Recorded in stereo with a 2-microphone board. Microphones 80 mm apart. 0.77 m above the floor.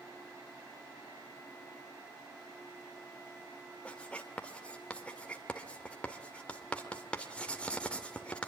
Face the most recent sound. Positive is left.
turn(degrees=15)  # may be behind; listen again after turning